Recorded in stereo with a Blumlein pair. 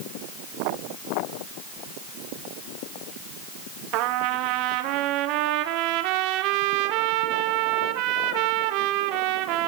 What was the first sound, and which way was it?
A trumpet, 40° right.